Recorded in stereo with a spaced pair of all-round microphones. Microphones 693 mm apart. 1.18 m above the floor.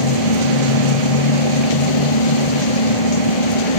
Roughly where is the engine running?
Left.